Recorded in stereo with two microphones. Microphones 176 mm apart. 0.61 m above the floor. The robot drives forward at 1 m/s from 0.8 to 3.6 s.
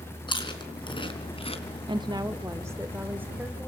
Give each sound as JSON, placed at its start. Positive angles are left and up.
{"t": 0.3, "sound": "chewing", "side_deg": 25, "distance_m": 3.5}
{"t": 1.9, "sound": "a woman speaking", "side_deg": -30, "distance_m": 0.8}